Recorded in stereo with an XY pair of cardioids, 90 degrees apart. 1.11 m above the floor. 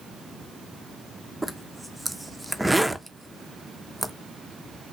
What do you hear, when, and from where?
1.4 s a zipper: 5° right, 0.7 m